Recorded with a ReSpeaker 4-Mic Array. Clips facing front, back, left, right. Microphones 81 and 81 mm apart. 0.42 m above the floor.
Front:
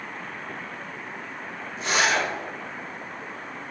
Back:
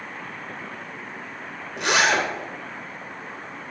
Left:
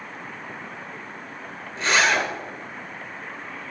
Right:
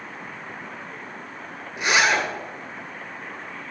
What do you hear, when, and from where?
1.8 s a zipper: 165° right, 2 m